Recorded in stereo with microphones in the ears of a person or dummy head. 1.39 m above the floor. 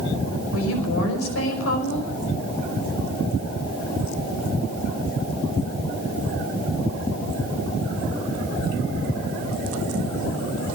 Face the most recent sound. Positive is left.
turn(degrees=85)